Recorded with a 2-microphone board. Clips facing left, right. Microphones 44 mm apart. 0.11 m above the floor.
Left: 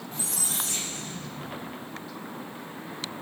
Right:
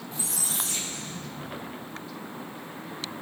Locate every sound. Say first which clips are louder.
0.1 s a squeak: even; 45° left (ahead or behind), 3 m